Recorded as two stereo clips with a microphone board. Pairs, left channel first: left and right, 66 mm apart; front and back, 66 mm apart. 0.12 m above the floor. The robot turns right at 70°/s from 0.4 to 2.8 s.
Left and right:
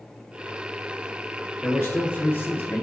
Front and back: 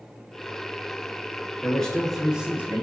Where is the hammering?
No hammering in this recording.